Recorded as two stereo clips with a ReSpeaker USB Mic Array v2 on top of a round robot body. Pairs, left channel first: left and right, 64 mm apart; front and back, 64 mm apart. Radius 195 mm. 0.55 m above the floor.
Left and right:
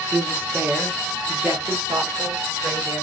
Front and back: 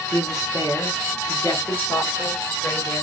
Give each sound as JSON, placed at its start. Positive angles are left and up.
{"t": 0.1, "sound": "a woman speaking", "azimuth_deg": -25, "distance_m": 1.7}